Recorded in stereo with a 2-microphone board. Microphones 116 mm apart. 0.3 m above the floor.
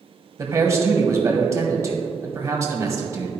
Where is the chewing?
No chewing in this recording.